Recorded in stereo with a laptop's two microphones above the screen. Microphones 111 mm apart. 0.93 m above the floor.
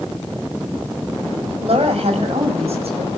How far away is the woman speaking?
About 6.5 m.